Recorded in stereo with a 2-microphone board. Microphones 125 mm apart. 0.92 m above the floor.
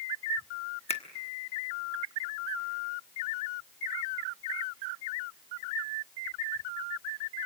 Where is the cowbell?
I don't hear a cowbell.